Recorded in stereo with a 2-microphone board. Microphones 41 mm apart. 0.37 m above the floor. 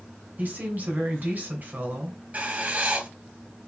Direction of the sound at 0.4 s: 45° right (ahead or behind).